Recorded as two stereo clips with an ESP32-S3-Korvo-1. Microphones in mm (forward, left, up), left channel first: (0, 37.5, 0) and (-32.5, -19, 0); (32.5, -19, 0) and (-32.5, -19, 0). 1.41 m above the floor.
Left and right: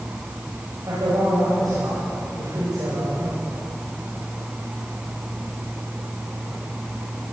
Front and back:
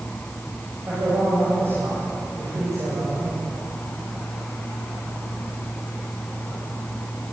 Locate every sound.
0.9 s a man speaking: 125° right, 9 m; by 3.4 s 150° right, 8.5 m